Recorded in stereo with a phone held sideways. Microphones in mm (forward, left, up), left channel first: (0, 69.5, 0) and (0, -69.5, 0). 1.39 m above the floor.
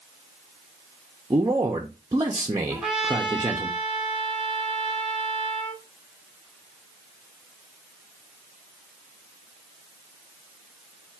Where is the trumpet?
5° right (ahead or behind), 2.5 m.